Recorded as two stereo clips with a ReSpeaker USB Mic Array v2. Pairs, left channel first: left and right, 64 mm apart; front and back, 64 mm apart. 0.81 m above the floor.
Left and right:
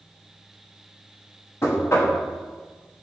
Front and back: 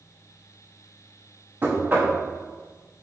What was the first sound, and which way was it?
Knocking, 125° left.